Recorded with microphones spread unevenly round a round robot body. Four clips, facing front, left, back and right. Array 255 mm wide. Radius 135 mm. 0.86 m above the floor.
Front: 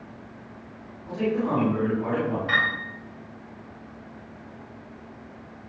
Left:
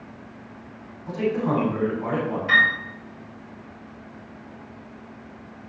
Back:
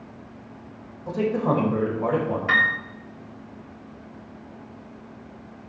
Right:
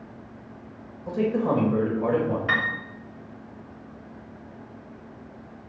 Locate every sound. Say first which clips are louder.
1.1 s a man speaking: even, back 2 dB; 140° right, 4.5 m
2.5 s a piano: left 5 dB, back 3 dB; 150° right, 3 m